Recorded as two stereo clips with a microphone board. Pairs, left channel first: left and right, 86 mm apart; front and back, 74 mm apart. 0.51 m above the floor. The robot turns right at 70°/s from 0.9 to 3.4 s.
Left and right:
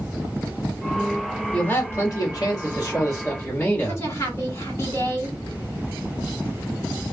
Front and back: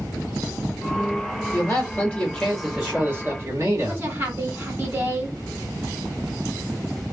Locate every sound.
1.5 s a man speaking: 20° left, 1.6 m; by 4.0 s 150° left, 1.6 m
3.9 s a woman speaking: 135° left, 1.4 m